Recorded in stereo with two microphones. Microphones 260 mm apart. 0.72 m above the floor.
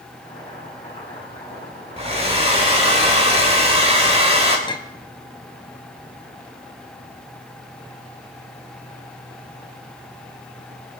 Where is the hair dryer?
25° right (ahead or behind), 2 m.